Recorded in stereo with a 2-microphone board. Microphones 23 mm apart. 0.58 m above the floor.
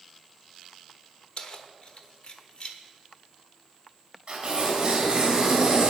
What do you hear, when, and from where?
1.4 s keys jangling: 50° left (ahead or behind), 1.1 m
4.3 s tearing paper: 35° right (ahead or behind), 4.5 m